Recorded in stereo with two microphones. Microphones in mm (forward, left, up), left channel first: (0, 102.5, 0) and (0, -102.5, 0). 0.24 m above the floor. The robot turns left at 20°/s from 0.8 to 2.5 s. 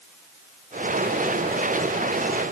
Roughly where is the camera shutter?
I don't hear a camera shutter.